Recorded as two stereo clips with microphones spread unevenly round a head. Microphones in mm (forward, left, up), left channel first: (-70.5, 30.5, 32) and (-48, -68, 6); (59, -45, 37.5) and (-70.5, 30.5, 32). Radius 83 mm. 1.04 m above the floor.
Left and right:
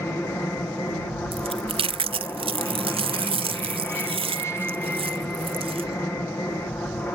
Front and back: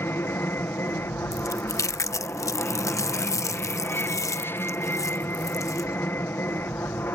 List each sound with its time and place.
0.0 s an aircraft: 30° left
1.3 s chewing: 100° right